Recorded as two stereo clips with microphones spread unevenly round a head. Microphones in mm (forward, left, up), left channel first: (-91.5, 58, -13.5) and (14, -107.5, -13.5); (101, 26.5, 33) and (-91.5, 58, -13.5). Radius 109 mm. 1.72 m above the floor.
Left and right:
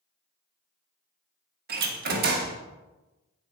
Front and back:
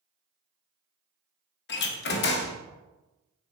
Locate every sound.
1.7 s a door slam: 15° right, 1.7 m